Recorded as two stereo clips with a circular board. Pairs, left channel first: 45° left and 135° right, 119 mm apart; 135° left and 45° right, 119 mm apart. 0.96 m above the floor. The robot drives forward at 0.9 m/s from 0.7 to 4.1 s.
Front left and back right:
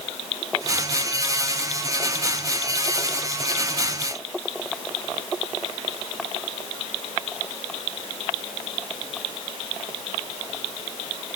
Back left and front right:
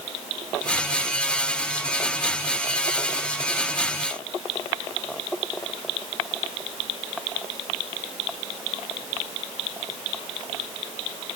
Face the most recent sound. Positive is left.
No sound to turn to.